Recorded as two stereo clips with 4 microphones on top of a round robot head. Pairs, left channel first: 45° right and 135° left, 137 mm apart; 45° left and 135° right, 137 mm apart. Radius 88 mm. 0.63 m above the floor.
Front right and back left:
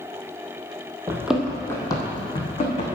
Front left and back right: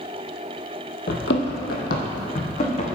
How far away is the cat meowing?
No cat meowing in this recording.